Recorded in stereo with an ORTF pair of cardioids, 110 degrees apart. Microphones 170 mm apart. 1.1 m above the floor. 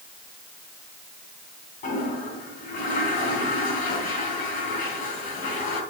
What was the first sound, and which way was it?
A toilet flushing, 55° left.